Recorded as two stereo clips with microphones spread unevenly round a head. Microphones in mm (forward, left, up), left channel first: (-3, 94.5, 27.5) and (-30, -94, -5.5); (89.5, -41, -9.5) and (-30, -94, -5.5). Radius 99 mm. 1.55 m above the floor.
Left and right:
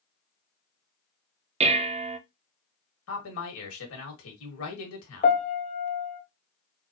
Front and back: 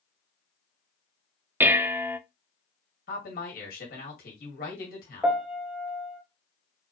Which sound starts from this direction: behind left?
A piano, at 5.2 s.